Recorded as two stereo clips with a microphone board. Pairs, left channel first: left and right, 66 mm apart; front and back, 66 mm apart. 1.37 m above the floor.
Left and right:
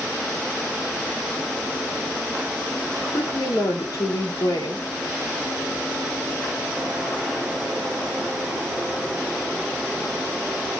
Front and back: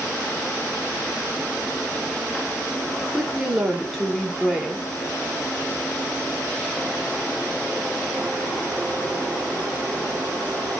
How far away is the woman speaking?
About 3 m.